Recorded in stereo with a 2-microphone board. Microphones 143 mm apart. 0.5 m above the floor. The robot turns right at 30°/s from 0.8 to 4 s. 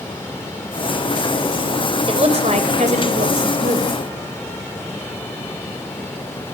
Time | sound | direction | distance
2.1 | a woman speaking | 130° right | 2.5 m